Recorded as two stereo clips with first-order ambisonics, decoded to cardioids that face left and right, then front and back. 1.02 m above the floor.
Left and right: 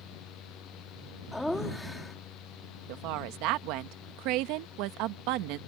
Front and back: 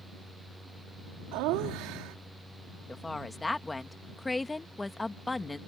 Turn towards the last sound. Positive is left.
turn(degrees=-80)